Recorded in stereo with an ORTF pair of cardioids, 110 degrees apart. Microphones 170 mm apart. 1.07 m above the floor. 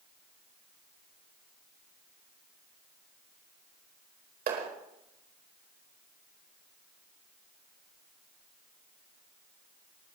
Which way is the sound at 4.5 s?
65° right.